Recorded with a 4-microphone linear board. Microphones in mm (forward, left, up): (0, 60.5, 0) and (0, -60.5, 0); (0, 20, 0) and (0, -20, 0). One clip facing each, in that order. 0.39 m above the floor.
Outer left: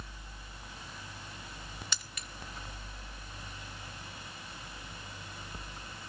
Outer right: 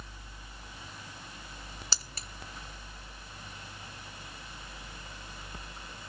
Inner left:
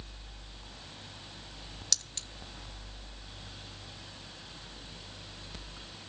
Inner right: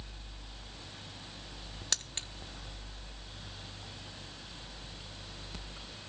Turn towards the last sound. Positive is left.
turn(degrees=-35)  # may be behind; listen again after turning